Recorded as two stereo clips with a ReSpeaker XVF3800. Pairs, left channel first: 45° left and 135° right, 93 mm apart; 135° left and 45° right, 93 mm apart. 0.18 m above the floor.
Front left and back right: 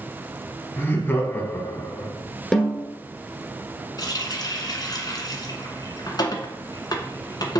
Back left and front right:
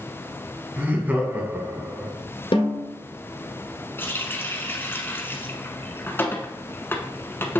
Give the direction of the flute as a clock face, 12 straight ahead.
I don't hear a flute.